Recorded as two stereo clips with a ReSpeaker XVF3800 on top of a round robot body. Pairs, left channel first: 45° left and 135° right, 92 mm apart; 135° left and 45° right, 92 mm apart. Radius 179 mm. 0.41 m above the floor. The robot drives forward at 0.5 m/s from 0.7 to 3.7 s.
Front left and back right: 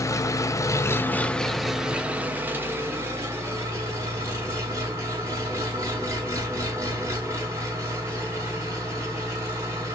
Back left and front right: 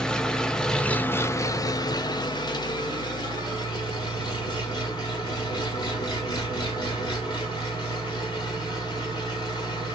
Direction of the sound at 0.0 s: 60° left.